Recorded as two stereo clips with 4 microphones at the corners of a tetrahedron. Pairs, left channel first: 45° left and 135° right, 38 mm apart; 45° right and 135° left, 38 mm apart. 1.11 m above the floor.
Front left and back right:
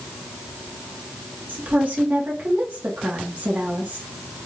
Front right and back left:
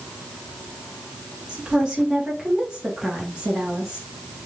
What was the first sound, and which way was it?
A woman speaking, 150° right.